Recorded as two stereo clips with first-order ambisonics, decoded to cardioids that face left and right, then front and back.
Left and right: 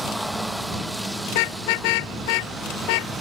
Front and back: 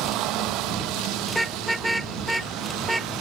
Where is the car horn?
90° left.